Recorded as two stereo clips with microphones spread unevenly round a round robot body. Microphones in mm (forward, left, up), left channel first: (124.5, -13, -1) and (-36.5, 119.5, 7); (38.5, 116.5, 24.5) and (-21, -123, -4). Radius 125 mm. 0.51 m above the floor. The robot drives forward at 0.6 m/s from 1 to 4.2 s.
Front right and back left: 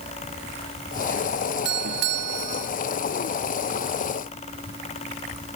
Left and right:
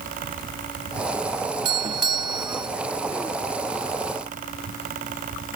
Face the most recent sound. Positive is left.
turn(degrees=-175)